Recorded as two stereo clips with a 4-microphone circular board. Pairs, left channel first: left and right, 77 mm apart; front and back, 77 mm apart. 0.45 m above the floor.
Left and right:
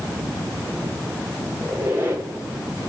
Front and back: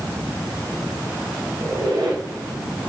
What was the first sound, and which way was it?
A squeak, 150° right.